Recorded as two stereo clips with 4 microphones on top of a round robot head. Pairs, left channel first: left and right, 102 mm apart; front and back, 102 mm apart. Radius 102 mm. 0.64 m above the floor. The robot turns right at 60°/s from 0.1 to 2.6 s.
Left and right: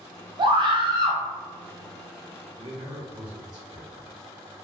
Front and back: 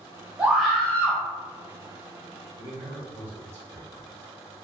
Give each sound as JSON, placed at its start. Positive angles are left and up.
{"t": 0.4, "sound": "a scream", "azimuth_deg": -105, "distance_m": 0.9}
{"t": 2.5, "sound": "a man speaking", "azimuth_deg": -120, "distance_m": 1.8}